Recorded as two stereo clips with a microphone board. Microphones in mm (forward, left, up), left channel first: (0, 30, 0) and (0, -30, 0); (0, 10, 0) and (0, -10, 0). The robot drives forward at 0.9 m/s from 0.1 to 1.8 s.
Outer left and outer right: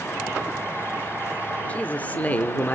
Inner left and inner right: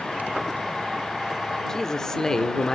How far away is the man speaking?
About 1.0 m.